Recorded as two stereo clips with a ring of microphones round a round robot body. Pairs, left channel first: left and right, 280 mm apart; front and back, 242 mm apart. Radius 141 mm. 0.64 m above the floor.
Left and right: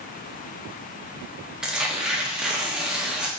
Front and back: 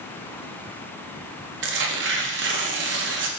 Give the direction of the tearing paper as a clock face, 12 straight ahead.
6 o'clock.